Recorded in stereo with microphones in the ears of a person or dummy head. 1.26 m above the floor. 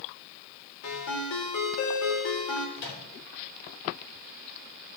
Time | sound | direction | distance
0.8 | a ringtone | 85° left | 3 m
2.8 | a microwave | 60° left (ahead or behind) | 3 m